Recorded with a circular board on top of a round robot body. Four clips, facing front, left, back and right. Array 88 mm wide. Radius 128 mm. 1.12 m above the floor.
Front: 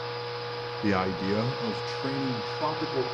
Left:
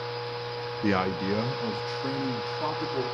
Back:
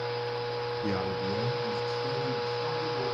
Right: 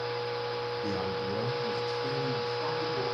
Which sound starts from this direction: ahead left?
A man speaking, at 0.8 s.